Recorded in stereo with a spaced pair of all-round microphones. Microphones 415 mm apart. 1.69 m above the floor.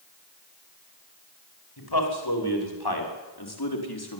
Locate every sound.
1.8 s a man speaking: 70° left (ahead or behind), 6 m; by 4.2 s 65° left (ahead or behind), 4.5 m